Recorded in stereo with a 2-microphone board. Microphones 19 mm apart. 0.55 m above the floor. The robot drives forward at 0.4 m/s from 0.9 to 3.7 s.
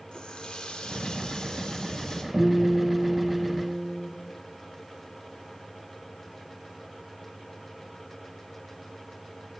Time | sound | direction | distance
0.1 | a running tap | 55° left (ahead or behind) | 0.7 m
2.3 | a guitar | 25° right (ahead or behind) | 3 m